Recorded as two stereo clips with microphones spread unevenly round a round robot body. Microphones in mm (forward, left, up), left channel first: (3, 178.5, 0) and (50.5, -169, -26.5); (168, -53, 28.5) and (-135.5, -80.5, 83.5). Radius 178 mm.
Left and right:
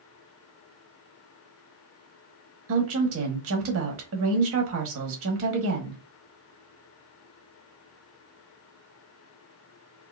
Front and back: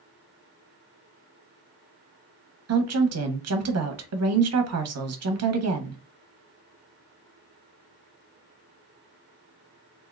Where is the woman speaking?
135° right, 1.1 m.